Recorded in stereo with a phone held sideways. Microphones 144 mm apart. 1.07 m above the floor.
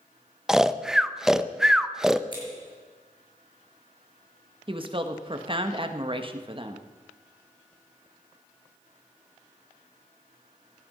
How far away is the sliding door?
No sliding door in this recording.